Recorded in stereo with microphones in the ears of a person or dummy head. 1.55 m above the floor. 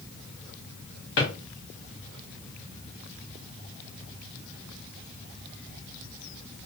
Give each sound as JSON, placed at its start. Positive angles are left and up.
{"t": 1.2, "sound": "a drawer", "side_deg": 60, "distance_m": 1.3}